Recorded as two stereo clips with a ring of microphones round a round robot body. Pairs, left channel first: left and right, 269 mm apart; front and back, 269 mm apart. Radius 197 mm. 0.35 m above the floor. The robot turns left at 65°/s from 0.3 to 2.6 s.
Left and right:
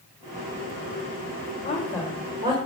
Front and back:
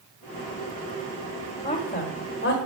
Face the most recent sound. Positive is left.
turn(degrees=-30)